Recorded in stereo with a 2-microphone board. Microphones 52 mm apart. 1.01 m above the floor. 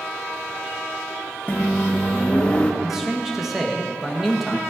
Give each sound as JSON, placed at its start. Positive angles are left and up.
{"t": 1.5, "sound": "a microwave", "side_deg": 25, "distance_m": 1.0}
{"t": 2.8, "sound": "a man speaking", "side_deg": -5, "distance_m": 1.4}